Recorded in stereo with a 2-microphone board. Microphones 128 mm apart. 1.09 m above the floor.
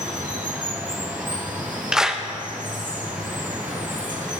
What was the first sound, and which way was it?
Running water, 80° right.